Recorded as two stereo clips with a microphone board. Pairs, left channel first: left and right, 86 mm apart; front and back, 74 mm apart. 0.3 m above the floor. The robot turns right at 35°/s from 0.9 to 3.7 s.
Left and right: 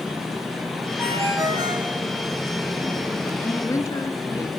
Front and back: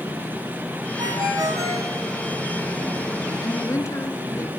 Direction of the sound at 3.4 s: 30° left.